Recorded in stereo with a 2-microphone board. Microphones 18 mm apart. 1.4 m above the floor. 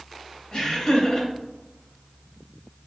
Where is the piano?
I don't hear a piano.